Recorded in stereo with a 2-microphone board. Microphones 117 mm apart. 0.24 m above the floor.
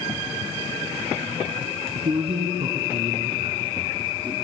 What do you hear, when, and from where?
1.9 s a man speaking: 60° right (ahead or behind), 3 m; by 4.3 s 35° right (ahead or behind), 4 m